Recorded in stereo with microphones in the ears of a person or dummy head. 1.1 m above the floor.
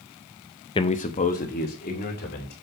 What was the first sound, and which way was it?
A man speaking, 25° left (ahead or behind).